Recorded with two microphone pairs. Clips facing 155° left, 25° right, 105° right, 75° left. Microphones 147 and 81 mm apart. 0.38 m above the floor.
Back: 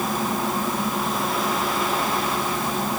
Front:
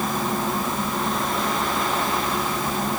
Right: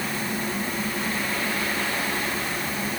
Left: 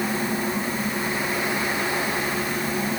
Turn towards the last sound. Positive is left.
No sound to turn to.